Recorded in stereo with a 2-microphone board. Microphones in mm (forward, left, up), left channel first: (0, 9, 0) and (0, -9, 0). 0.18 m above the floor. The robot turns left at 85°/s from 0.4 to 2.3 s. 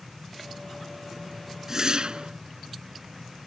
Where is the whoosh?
30° right; by 2.3 s 85° right.